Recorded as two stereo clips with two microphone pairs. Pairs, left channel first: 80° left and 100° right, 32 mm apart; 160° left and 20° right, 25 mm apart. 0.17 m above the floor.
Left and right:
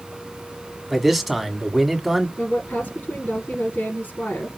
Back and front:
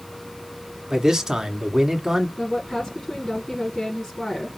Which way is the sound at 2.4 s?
90° left.